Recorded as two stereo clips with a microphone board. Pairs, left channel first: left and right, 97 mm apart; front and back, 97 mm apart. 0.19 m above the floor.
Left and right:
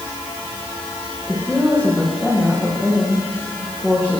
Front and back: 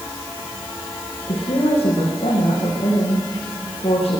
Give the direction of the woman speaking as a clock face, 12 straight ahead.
12 o'clock.